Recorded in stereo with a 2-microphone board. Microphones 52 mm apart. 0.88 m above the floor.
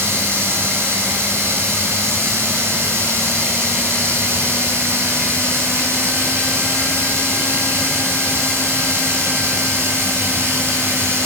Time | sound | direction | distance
0.0 | running water | 55° right (ahead or behind) | 9.5 m